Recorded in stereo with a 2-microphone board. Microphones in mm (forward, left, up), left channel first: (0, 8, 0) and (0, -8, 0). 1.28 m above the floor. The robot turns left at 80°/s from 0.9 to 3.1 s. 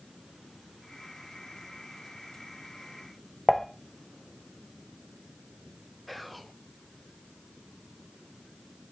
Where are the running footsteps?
I don't hear running footsteps.